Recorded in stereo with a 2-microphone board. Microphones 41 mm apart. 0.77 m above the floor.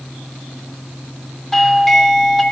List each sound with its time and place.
1.5 s a doorbell: 10° left (ahead or behind), 0.9 m